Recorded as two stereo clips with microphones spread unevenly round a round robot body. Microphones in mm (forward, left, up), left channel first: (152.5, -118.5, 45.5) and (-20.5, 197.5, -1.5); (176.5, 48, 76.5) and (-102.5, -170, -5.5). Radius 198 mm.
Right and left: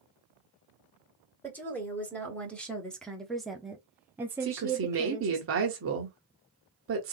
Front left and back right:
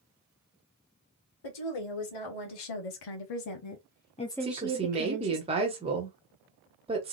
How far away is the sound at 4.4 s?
About 1.2 m.